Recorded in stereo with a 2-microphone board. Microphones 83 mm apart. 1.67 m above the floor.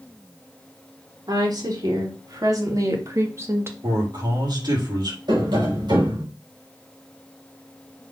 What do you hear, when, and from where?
1.3 s a woman speaking: 60° right (ahead or behind), 3.5 m; by 3.7 s 30° right (ahead or behind), 1.6 m
3.8 s a man speaking: 60° right (ahead or behind), 4 m
5.3 s tapping: 70° right (ahead or behind), 4.5 m